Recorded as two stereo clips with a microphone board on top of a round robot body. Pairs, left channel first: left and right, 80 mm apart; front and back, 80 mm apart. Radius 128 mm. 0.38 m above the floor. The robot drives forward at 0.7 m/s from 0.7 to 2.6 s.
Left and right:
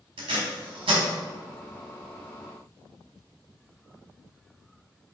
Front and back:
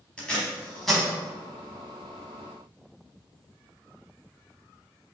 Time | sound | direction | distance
0.2 | tape being pulled | 80° right | 1.0 m